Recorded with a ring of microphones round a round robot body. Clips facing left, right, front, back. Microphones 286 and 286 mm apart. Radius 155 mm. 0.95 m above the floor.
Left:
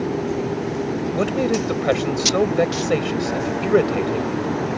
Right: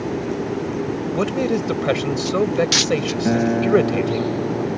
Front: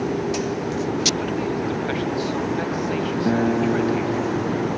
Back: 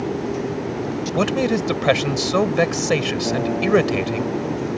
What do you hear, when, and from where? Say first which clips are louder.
1.1 s a man speaking: even, back 4 dB; 175° right
3.2 s a guitar: right 4 dB, front 1 dB; 65° right